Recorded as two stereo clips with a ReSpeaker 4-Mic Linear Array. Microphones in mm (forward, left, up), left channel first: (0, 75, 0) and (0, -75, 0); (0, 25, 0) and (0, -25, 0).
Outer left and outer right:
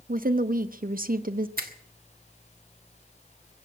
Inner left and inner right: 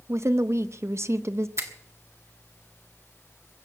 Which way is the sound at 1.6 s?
75° right (ahead or behind).